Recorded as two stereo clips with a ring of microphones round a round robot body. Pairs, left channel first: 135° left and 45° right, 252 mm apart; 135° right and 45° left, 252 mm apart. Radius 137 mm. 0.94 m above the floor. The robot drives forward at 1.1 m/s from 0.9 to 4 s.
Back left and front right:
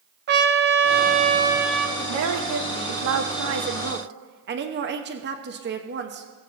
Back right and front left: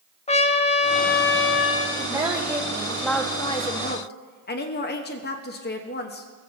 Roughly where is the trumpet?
Right.